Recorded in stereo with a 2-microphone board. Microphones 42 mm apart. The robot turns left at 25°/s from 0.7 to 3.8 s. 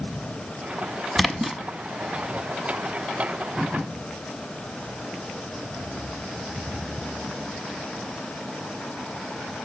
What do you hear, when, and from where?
1.2 s a splash: centre (ahead or behind), 0.6 m; by 1.6 s 5° right (ahead or behind), 0.6 m